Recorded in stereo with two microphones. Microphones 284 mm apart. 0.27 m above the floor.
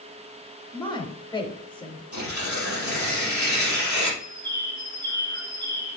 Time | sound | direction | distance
0.7 | a woman speaking | 15° left (ahead or behind) | 0.9 m
2.1 | tearing paper | 80° right | 4 m
4.2 | a bird | 80° right | 4.5 m